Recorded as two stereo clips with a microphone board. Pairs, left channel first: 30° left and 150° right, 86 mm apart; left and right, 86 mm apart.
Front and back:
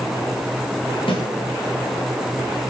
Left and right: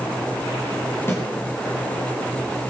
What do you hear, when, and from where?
1.1 s a snare drum: 25° left, 6.5 m